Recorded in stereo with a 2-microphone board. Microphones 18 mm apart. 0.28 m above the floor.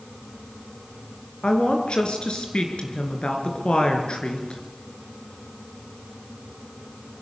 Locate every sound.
1.4 s a woman speaking: 65° left (ahead or behind), 4 m